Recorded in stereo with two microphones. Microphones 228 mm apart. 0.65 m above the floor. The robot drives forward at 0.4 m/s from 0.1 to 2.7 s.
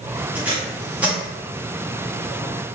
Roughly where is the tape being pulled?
Centre.